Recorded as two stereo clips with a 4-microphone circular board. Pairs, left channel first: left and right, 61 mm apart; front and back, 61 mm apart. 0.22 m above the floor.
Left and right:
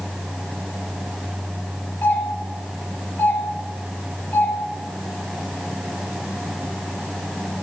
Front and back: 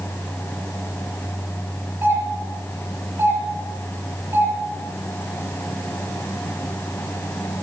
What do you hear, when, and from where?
2.0 s a doorbell: 140° left, 6 m